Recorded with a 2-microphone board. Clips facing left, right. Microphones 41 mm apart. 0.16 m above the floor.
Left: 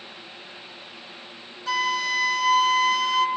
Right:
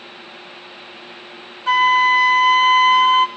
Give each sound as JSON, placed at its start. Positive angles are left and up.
{"t": 1.7, "sound": "a flute", "side_deg": -40, "distance_m": 1.2}